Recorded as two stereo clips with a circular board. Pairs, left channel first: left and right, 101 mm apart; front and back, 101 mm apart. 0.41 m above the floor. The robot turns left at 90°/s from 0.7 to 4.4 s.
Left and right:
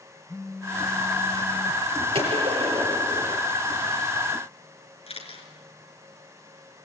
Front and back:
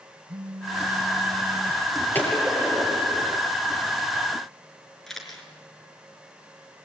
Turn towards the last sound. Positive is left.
turn(degrees=85)